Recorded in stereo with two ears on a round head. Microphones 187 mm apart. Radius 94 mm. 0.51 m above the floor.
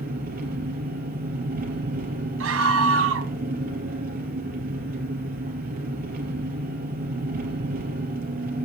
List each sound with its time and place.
0.0 s an engine running: 45° right (ahead or behind), 4 m
2.4 s a scream: 75° right (ahead or behind), 3 m